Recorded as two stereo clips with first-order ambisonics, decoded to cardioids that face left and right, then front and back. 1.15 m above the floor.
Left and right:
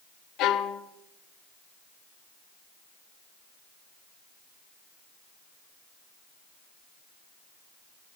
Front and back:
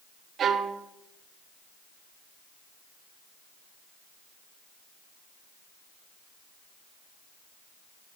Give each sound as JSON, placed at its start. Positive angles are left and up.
{"t": 0.4, "sound": "a violin", "azimuth_deg": 125, "distance_m": 0.6}